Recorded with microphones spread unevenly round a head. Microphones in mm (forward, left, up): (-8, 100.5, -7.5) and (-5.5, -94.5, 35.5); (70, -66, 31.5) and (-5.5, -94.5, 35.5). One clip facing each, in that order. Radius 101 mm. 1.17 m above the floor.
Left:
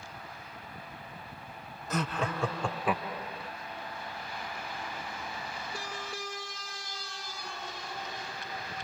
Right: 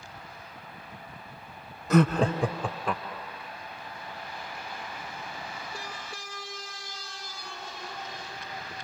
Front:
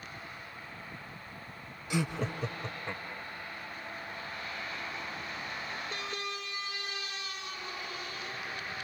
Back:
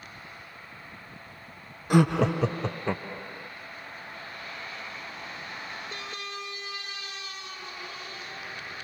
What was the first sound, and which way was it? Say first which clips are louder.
Laughter: right 11 dB, back 11 dB; 120° right.